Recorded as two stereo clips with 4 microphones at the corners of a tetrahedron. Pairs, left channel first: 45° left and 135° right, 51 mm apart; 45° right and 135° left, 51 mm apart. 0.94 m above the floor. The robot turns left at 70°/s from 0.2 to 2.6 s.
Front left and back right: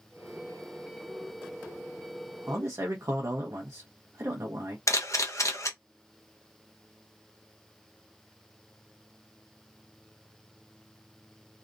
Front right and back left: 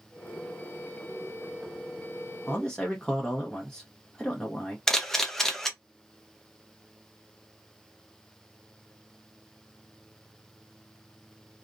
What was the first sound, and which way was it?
A man speaking, 105° right.